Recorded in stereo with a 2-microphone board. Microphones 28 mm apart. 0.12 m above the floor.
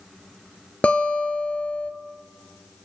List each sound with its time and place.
0.8 s a guitar: 55° left (ahead or behind), 0.8 m